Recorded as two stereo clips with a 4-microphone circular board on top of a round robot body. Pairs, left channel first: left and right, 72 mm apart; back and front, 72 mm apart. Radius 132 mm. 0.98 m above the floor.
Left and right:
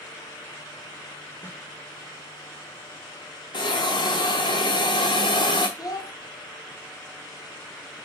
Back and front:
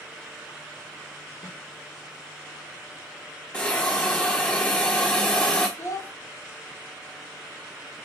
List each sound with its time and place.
1.4 s a snare drum: 145° left, 1.9 m
3.5 s a hiss: 105° left, 0.8 m
5.8 s a child speaking: 125° left, 1.0 m